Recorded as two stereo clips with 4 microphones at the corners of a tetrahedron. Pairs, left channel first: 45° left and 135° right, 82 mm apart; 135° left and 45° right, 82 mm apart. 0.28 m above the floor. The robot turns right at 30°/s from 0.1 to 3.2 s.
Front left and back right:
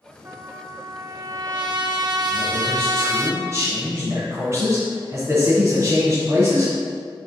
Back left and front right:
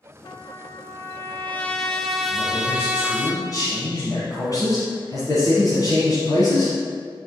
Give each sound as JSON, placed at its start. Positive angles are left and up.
{"t": 0.2, "sound": "a trumpet", "azimuth_deg": 165, "distance_m": 0.6}
{"t": 2.3, "sound": "a man speaking", "azimuth_deg": 150, "distance_m": 2.0}